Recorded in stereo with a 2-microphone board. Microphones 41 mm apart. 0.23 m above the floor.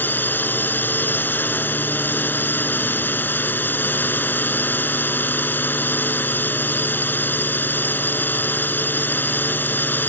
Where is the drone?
55° left (ahead or behind).